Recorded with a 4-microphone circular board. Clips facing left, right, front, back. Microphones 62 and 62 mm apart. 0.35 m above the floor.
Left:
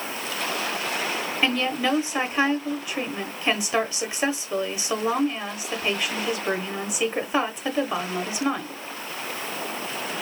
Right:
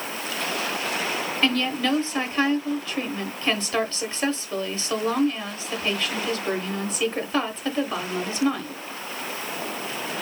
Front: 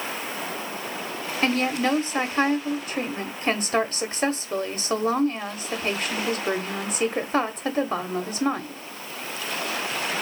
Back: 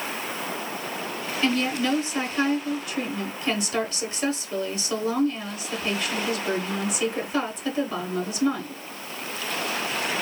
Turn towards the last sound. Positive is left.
turn(degrees=20)